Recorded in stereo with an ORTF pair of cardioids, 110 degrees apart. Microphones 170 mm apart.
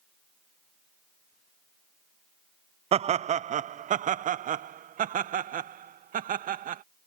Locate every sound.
2.9 s laughter: 35° right; by 6.8 s 55° right